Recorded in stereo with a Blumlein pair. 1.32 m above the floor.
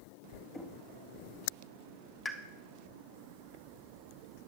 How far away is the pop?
About 1.2 m.